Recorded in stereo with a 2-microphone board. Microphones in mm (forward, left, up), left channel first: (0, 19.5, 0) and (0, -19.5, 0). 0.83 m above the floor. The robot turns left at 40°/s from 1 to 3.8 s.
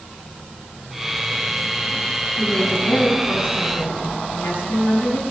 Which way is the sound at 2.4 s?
175° left.